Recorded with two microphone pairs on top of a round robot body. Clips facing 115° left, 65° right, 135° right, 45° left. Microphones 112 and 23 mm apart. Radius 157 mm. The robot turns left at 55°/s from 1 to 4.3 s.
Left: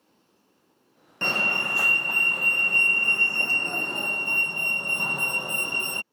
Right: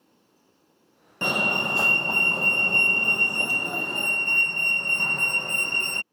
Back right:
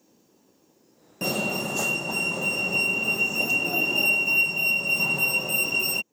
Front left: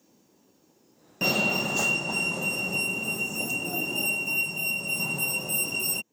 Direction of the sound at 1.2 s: Straight ahead.